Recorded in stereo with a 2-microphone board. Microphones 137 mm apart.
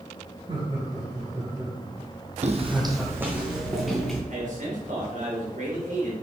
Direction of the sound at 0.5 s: 45° right (ahead or behind).